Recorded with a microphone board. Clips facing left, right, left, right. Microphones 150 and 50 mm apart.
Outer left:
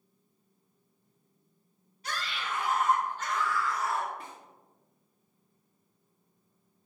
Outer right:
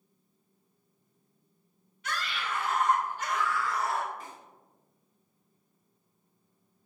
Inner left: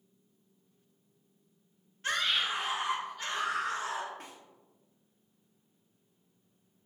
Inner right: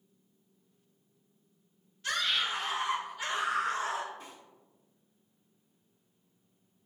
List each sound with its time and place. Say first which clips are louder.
2.0 s a scream: outer right 1 dB, inner left 1 dB; 35° left (ahead or behind), 2.5 m; by 4.1 s 40° right (ahead or behind), 2.5 m
4.2 s a snare drum: even, even; 60° left (ahead or behind), 1.7 m